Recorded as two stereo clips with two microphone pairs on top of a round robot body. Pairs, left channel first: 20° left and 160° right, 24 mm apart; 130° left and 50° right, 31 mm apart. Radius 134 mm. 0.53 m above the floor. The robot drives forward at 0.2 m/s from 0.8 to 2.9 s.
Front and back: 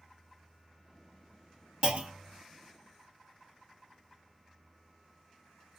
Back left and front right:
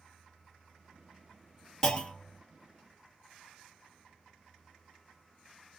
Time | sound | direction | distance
1.8 | a clunk | 160° right | 1.0 m